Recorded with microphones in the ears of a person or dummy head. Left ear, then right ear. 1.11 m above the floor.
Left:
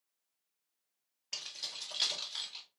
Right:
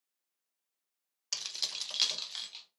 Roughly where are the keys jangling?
Right.